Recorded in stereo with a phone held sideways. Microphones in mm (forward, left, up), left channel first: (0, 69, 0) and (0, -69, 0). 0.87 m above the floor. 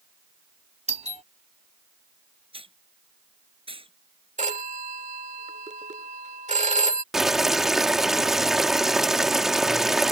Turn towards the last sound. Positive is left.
turn(degrees=0)  # may be behind; listen again after turning